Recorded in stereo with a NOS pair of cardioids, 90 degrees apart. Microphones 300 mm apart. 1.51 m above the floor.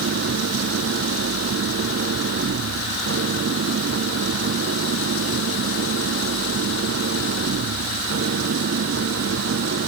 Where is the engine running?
50° right.